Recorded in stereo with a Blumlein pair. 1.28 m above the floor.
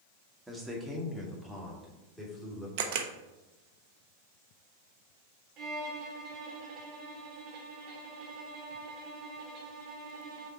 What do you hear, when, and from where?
0.5 s a man speaking: 5° right, 1.5 m; by 2.7 s 10° left, 2.5 m
2.8 s a camera shutter: 50° right, 0.7 m
5.6 s a violin: 30° right, 1.2 m